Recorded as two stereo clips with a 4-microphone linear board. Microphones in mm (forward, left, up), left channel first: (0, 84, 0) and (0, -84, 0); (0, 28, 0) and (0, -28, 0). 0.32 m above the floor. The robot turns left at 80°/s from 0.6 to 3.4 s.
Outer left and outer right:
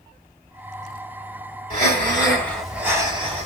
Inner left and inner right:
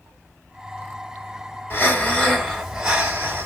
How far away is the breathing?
About 2 m.